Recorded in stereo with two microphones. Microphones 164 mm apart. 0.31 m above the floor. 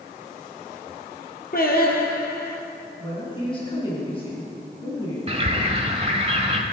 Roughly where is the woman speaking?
Left.